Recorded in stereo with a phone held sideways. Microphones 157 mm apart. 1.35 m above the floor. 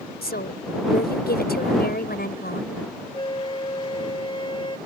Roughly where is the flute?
Left.